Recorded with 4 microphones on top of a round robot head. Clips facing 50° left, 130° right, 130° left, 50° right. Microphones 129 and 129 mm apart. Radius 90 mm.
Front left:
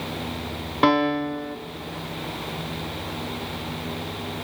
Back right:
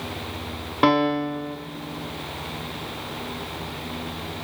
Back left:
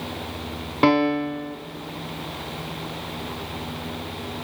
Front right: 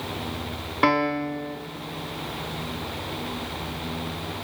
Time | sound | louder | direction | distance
0.8 | a piano | even, back left 4 dB | 145° left | 1.2 m